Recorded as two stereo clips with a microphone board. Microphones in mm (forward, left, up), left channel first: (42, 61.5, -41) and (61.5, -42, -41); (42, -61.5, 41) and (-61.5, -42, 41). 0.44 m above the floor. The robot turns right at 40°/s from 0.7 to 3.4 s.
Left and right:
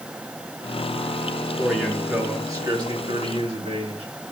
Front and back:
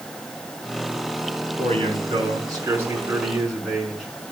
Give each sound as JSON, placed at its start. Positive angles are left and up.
{"t": 1.6, "sound": "a man speaking", "azimuth_deg": -170, "distance_m": 5.0}